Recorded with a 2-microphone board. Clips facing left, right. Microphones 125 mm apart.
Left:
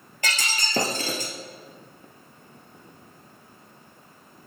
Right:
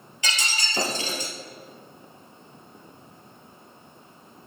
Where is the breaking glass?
50° left (ahead or behind), 2.5 m.